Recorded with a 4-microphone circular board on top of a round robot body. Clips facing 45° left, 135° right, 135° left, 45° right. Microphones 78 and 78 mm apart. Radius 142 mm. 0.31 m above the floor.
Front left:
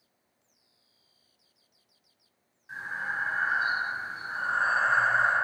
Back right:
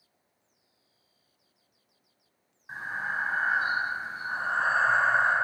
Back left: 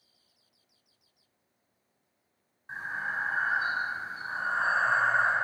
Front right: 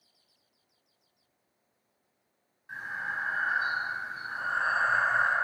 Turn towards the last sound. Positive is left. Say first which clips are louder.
# back right 1 dB, back left 1 dB
turn(degrees=-170)